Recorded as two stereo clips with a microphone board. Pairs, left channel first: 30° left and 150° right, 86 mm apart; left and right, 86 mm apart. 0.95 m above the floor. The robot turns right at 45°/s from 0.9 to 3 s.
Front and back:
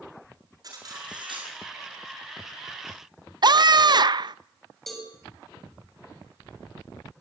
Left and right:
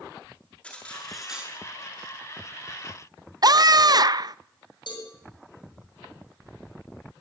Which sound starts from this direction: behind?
Cutlery clinking, at 0.6 s.